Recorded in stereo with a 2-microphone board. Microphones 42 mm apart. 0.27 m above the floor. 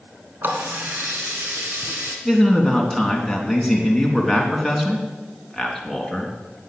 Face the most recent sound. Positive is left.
turn(degrees=5)  # may be behind; listen again after turning